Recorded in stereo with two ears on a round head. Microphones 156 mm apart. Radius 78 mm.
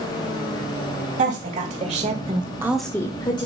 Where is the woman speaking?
45° right (ahead or behind), 2.5 m; by 3.5 s 30° left (ahead or behind), 1.5 m.